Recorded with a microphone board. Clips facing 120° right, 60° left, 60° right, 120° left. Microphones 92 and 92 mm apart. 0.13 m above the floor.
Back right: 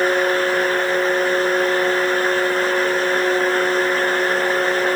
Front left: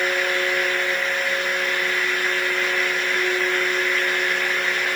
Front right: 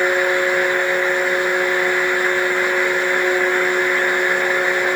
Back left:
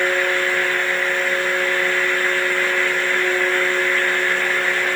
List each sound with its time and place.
Only background noise.